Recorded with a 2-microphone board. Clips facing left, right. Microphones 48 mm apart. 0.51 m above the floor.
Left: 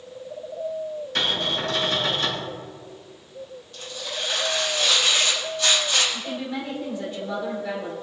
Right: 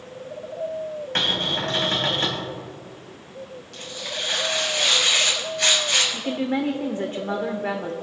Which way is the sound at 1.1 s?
45° right (ahead or behind).